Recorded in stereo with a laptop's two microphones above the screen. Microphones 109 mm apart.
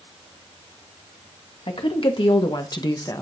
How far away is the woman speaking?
About 1.7 m.